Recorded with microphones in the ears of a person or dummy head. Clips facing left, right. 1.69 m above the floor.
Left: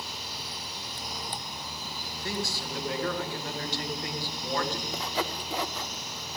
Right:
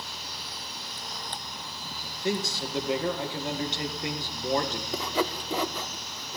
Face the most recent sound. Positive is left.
turn(degrees=-75)  # may be behind; listen again after turning